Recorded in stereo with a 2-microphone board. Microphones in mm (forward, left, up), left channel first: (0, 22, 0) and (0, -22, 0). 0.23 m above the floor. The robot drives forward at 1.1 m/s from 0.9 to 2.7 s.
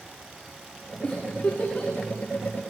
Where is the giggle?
35° left (ahead or behind), 7 m; by 1.9 s 40° left (ahead or behind), 6 m.